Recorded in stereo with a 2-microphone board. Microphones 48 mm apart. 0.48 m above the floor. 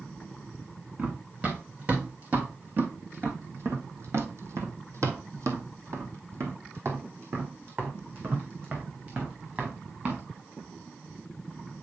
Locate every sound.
1.0 s running footsteps: 30° right (ahead or behind), 2.5 m; by 10.2 s 35° right (ahead or behind), 3 m